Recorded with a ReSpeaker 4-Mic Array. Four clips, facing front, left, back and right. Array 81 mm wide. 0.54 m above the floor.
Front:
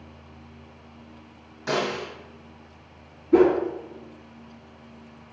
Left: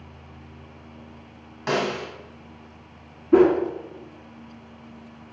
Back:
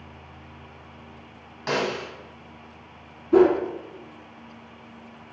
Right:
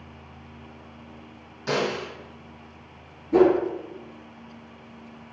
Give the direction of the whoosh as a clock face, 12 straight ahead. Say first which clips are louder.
Left 2 dB, back 1 dB; 9 o'clock.